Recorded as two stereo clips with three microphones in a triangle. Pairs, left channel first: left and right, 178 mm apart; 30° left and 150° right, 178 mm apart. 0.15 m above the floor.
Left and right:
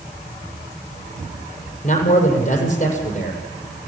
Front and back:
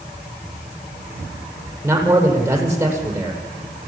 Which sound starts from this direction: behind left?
A man speaking, at 1.8 s.